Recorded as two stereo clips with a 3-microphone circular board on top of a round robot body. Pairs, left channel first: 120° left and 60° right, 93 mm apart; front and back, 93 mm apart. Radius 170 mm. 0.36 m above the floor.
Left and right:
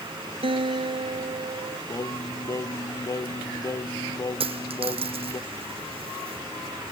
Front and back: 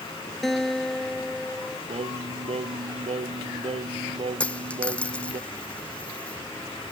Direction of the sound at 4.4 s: 75° right.